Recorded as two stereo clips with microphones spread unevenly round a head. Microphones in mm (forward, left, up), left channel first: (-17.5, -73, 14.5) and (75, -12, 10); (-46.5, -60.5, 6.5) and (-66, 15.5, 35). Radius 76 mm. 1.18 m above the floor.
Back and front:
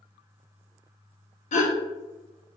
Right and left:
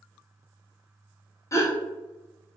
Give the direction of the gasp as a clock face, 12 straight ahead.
4 o'clock.